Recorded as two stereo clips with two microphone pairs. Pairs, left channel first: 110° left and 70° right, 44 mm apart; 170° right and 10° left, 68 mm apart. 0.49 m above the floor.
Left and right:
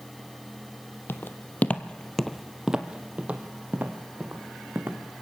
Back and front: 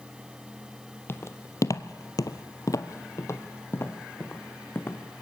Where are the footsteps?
140° left, 1.1 m; by 5.0 s 110° right, 2.5 m.